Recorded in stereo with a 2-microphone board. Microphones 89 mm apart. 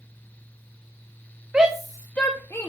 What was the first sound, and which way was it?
A shout, 15° right (ahead or behind).